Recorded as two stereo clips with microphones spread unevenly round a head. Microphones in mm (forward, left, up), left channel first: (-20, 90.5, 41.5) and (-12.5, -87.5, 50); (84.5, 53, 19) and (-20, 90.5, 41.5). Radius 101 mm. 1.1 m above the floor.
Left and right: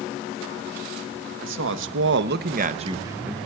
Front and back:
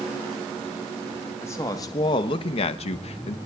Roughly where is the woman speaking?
Right.